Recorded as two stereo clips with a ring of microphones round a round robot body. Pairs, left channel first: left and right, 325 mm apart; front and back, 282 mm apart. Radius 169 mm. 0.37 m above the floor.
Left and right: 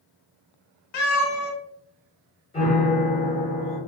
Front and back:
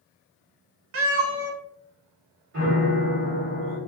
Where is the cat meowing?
135° left, 0.9 m.